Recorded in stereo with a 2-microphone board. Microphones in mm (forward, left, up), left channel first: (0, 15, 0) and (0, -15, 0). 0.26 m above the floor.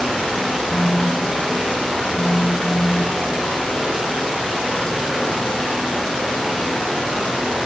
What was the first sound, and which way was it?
A phone buzzing, 85° left.